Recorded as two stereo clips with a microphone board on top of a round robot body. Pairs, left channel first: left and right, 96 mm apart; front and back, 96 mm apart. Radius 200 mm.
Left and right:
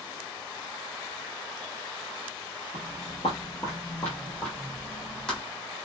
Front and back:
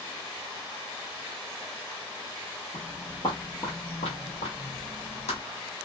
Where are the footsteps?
105° left, 0.7 m; by 5.4 s 5° left, 1.4 m.